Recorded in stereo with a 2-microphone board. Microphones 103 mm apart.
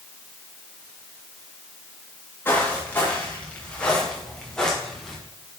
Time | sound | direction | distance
2.5 | footsteps | 20° left (ahead or behind) | 6.5 m